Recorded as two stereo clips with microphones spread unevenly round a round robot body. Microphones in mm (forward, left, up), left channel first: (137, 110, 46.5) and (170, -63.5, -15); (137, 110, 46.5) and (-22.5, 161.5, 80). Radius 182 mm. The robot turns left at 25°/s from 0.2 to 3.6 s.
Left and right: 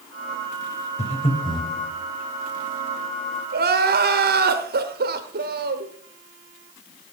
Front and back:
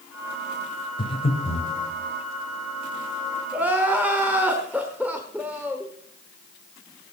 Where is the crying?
110° right, 0.8 m.